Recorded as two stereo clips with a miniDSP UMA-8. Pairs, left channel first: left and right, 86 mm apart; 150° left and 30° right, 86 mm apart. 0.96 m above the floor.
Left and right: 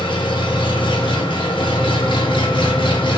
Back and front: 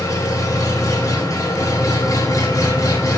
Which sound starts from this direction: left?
An engine running, at 0.0 s.